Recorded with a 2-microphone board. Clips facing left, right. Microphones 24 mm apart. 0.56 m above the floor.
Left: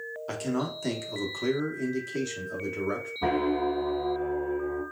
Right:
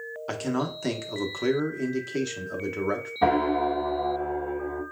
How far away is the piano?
About 2 m.